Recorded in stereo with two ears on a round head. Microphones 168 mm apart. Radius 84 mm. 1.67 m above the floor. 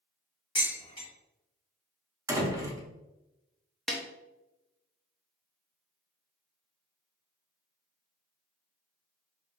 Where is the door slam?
15° right (ahead or behind), 0.5 m.